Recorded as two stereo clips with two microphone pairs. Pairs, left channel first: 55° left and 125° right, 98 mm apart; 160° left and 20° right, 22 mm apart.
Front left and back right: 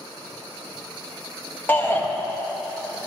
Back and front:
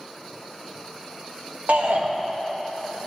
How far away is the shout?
About 1.8 m.